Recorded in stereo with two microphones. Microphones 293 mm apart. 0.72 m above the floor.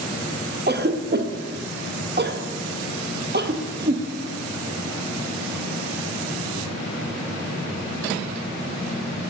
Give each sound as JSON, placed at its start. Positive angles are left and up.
{"t": 0.7, "sound": "a cough", "side_deg": -35, "distance_m": 0.5}